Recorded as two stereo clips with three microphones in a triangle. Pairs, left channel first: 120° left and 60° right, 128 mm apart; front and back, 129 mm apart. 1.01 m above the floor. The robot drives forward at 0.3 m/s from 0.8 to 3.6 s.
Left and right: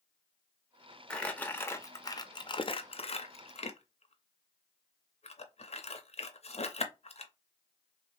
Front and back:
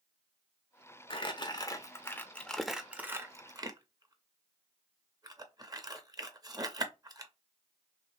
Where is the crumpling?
40° left, 0.7 m; by 7.3 s 130° left, 0.6 m.